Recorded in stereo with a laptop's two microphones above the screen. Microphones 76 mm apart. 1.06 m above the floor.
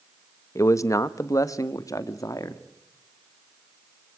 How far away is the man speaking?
About 1.0 m.